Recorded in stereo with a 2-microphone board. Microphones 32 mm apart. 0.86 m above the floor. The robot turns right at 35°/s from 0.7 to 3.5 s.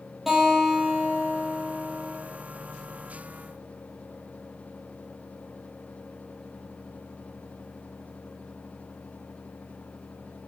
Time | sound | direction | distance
0.3 | a guitar | 5° right | 3.5 m